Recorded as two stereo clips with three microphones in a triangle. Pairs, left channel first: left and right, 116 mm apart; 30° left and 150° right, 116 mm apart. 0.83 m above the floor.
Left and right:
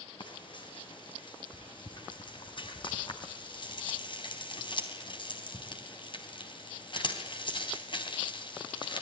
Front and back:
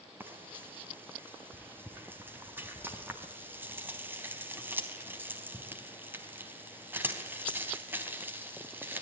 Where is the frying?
140° left, 3.5 m.